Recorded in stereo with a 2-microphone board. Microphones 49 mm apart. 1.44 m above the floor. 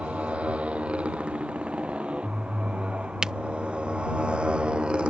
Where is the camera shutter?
15° right (ahead or behind).